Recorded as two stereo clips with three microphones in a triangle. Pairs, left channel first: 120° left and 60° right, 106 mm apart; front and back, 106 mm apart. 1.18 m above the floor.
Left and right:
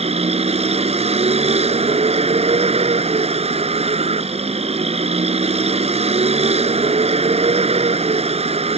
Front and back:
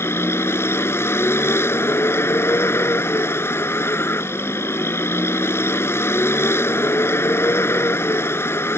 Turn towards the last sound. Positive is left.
turn(degrees=-65)